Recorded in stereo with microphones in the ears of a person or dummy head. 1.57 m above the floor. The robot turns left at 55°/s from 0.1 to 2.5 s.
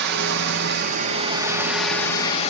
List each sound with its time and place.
0.0 s running water: 85° right, 1.7 m; by 2.5 s 145° left, 1.7 m